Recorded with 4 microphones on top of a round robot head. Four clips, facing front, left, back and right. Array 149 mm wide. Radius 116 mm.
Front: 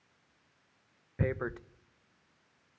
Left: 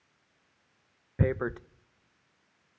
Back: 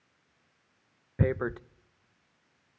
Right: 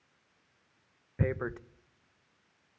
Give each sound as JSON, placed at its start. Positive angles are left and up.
{"t": 1.2, "sound": "tearing paper", "azimuth_deg": 140, "distance_m": 0.7}